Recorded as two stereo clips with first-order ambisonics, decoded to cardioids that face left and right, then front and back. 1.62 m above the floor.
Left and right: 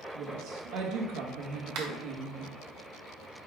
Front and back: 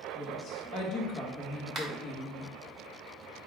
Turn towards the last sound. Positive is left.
turn(degrees=-115)